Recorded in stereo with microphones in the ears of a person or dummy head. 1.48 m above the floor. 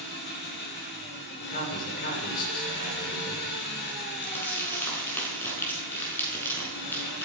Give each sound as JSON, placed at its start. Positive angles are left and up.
{"t": 0.0, "sound": "an engine running", "side_deg": 60, "distance_m": 9.0}
{"t": 1.4, "sound": "a man speaking", "side_deg": 50, "distance_m": 6.5}
{"t": 4.2, "sound": "crumpling", "side_deg": 15, "distance_m": 7.0}